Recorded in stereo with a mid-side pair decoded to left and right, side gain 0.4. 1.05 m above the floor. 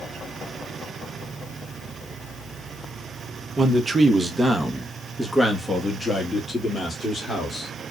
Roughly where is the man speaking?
Ahead right.